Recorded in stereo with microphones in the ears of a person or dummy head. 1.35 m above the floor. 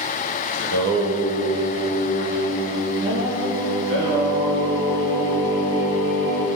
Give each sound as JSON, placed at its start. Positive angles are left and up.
{"t": 0.6, "sound": "singing", "side_deg": -70, "distance_m": 8.0}